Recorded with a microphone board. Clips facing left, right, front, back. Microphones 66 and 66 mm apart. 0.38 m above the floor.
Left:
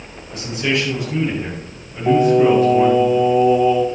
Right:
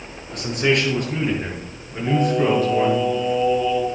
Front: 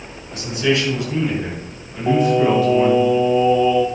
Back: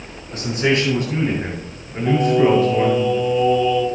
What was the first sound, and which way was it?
A man speaking, 130° right.